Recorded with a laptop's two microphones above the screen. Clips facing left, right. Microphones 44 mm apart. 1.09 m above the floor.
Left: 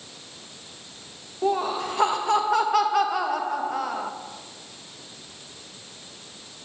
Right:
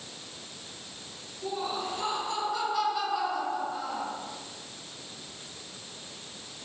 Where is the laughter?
75° left (ahead or behind), 1.0 m.